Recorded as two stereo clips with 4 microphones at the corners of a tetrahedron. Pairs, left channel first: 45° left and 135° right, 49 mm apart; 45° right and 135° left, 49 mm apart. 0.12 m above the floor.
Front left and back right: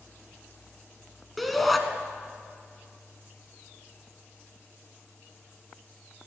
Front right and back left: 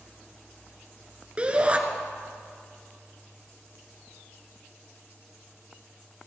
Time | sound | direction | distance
1.4 | a shout | 130° left | 1.4 m